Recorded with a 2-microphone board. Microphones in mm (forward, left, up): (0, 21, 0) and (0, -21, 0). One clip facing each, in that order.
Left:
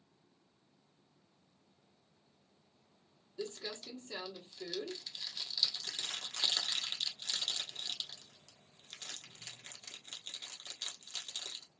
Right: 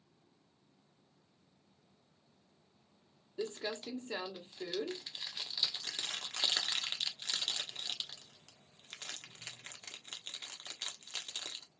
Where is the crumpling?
30° right (ahead or behind), 1.4 m.